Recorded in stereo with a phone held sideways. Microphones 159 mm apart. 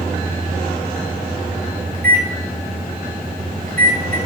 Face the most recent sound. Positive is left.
turn(degrees=-65)  # may be behind; listen again after turning